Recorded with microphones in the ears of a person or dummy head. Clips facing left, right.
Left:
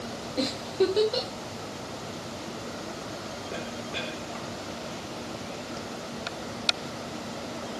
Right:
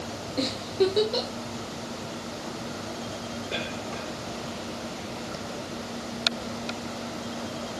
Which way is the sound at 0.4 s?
Centre (ahead or behind).